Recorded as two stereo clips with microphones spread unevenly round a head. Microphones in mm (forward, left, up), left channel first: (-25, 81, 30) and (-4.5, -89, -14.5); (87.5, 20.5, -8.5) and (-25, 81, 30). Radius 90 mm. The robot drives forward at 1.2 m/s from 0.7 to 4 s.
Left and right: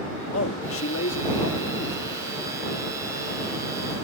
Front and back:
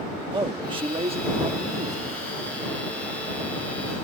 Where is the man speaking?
100° left; by 2.2 s 125° left.